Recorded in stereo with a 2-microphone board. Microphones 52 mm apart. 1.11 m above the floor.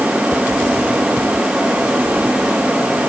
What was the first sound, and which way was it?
Only background noise.